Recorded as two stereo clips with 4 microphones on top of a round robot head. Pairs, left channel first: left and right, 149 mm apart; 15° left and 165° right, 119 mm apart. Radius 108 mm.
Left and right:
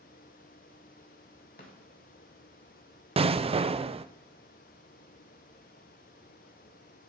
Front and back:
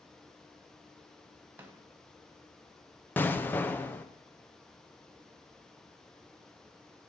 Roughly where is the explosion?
Ahead right.